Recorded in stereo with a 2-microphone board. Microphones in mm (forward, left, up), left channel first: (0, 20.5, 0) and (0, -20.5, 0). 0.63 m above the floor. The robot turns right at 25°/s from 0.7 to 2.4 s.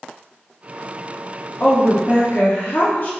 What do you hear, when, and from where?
1.6 s a woman speaking: 40° left (ahead or behind), 0.7 m; by 3.1 s 45° left (ahead or behind), 0.7 m